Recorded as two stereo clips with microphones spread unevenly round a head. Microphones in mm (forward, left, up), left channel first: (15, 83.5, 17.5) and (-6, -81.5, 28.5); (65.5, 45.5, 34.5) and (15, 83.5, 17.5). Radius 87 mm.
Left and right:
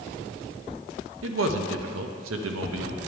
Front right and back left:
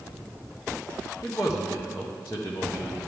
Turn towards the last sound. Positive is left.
turn(degrees=-110)